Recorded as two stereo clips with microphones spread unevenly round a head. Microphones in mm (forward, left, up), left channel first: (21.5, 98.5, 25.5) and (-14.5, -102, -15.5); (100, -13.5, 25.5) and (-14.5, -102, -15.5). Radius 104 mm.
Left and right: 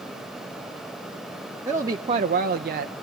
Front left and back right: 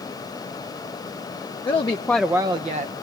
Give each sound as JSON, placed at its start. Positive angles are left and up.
{"t": 1.6, "sound": "a woman speaking", "azimuth_deg": -25, "distance_m": 0.8}